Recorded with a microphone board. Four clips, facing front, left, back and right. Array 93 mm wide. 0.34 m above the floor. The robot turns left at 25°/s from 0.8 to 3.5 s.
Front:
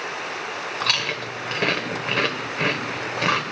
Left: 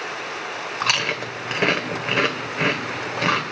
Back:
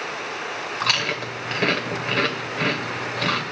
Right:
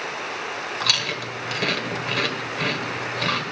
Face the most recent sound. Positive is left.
turn(degrees=40)